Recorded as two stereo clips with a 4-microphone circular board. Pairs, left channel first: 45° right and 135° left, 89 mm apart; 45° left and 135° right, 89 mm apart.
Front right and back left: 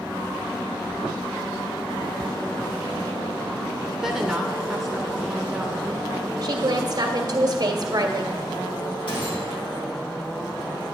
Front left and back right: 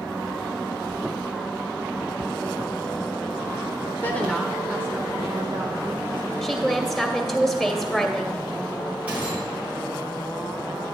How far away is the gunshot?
About 4 m.